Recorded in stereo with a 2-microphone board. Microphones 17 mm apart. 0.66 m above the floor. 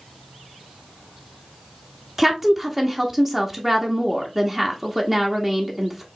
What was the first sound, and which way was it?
A woman speaking, 20° right (ahead or behind).